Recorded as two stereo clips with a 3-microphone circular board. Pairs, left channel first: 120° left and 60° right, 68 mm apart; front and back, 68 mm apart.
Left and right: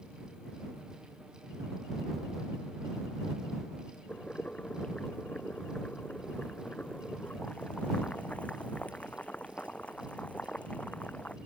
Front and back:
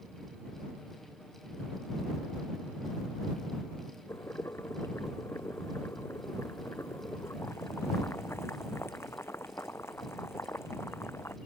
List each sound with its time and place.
4.1 s boiling: 50° left